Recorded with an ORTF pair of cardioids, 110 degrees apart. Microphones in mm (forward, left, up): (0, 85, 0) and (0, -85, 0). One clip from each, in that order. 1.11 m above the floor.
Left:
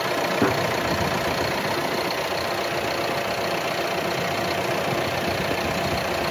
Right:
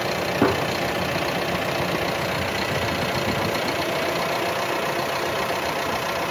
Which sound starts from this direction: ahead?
A gunshot, at 0.4 s.